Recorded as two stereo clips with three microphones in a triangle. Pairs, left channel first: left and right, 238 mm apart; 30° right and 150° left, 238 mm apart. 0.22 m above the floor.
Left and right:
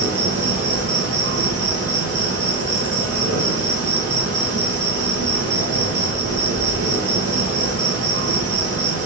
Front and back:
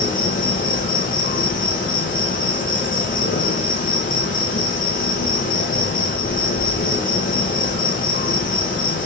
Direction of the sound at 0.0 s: 85° right.